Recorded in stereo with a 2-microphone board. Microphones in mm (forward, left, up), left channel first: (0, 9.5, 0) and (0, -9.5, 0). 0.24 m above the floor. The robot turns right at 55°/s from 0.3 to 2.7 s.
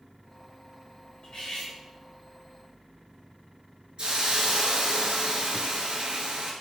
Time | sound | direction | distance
1.2 | cutlery clinking | 75° left (ahead or behind) | 2 m
4.0 | a hiss | 65° right (ahead or behind) | 1.1 m